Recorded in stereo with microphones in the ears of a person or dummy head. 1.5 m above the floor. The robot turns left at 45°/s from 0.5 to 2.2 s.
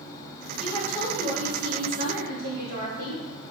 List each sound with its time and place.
0.6 s a woman speaking: 5° right, 3 m; by 3.2 s 75° right, 3 m